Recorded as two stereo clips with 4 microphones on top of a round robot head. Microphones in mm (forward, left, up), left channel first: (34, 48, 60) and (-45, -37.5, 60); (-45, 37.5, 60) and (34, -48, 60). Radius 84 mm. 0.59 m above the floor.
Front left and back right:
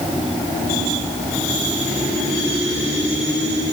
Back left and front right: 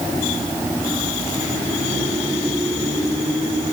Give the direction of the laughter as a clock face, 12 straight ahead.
I don't hear laughter.